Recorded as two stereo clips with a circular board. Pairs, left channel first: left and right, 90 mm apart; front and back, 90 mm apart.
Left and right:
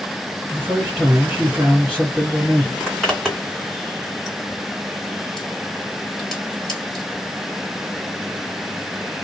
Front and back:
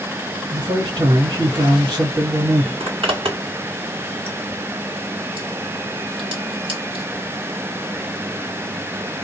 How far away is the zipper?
About 1.7 m.